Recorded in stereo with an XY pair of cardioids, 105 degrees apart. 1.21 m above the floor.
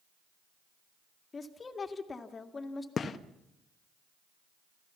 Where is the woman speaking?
30° left, 2 m.